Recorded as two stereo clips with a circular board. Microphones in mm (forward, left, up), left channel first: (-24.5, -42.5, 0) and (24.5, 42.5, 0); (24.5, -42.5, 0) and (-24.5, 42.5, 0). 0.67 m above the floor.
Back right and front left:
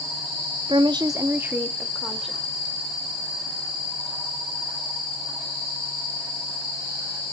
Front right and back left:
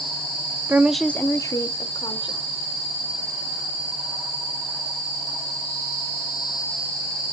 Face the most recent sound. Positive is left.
turn(degrees=-30)